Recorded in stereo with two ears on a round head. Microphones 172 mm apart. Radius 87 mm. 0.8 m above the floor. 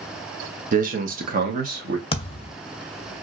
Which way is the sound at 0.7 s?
45° right (ahead or behind).